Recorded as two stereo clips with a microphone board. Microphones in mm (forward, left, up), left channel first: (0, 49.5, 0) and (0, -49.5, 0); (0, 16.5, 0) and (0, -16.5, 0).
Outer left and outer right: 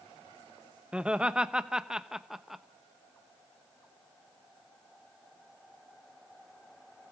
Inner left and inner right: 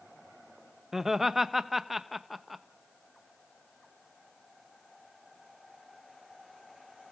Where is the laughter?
10° right (ahead or behind), 0.9 m; by 2.6 s 5° right (ahead or behind), 1.1 m.